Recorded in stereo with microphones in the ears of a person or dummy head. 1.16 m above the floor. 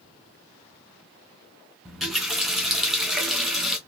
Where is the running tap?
Centre (ahead or behind), 0.7 m.